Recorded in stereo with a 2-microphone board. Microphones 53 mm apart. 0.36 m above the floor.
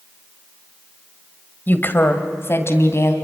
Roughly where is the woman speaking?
Left.